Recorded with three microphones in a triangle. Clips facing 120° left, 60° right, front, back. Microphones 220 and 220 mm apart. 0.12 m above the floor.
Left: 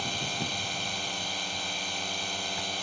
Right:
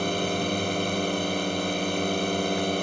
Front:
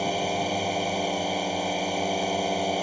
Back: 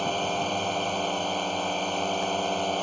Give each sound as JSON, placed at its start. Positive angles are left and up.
{"t": 0.0, "sound": "a drone", "azimuth_deg": -80}